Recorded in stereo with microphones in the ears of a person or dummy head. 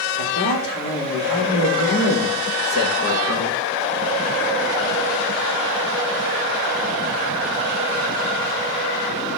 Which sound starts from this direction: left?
A man speaking, at 0.2 s.